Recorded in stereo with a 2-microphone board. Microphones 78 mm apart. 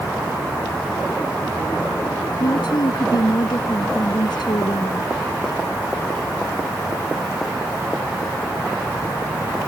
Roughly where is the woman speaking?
Left.